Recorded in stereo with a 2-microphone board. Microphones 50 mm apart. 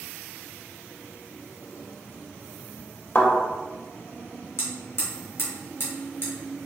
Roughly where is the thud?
Left.